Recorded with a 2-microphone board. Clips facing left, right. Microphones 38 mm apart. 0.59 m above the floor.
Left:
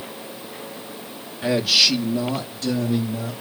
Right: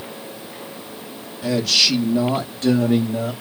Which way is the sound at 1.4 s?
35° left (ahead or behind).